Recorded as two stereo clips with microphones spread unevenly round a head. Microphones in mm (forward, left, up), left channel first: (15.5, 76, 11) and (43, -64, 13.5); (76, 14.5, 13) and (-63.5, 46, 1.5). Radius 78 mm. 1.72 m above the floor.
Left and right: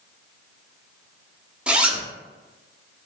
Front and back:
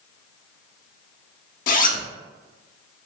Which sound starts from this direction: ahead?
A zipper, at 1.7 s.